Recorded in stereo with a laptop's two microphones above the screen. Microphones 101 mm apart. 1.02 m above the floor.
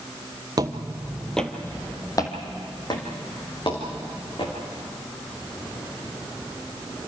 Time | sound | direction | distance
0.6 | footsteps | 40° right (ahead or behind) | 1.3 m